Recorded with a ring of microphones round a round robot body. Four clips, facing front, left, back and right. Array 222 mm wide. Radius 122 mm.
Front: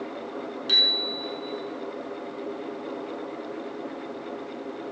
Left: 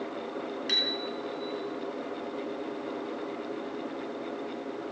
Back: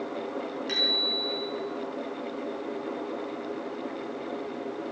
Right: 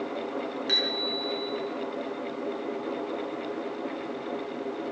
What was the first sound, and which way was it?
A bicycle bell, 35° left.